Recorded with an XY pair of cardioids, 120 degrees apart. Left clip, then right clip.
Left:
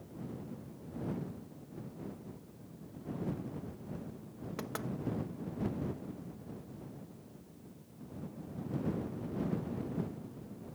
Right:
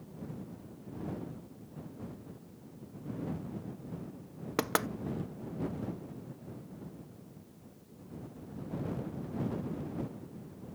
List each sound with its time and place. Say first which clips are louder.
4.6 s knocking: right 11 dB; 65° right